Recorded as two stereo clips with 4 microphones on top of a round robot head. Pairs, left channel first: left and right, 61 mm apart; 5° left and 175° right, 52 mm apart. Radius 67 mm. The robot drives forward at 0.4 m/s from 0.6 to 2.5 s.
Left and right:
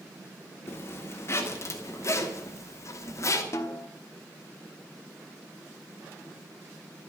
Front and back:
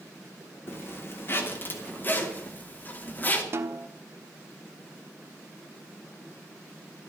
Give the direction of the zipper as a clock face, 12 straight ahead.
11 o'clock.